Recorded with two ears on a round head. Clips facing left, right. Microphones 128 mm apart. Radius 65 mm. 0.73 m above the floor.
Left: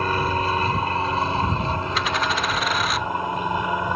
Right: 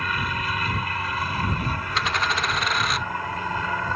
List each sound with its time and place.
0.0 s an aircraft: 30° left (ahead or behind); by 4.0 s 15° left (ahead or behind)
1.9 s a dropped coin: centre (ahead or behind)